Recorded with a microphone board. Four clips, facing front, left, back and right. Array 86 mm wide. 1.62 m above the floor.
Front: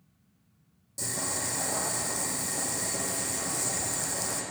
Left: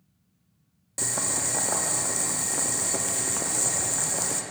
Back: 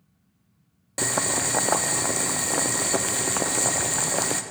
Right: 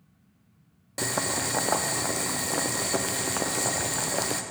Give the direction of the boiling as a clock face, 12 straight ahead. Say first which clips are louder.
Right 4 dB, back 9 dB; 5 o'clock.